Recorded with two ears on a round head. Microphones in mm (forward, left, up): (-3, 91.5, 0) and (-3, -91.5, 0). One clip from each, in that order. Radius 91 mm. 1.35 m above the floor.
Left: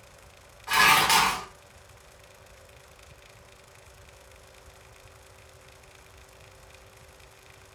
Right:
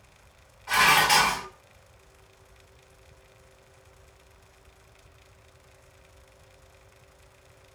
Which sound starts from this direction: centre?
Dishes clattering, at 0.7 s.